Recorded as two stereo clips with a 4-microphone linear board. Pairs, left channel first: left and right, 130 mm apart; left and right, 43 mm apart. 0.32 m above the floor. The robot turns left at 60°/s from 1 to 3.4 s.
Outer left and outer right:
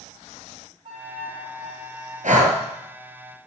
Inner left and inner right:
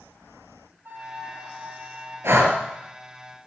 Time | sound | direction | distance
0.8 | a flute | 50° right | 4 m
2.2 | breathing | 75° right (ahead or behind) | 1.5 m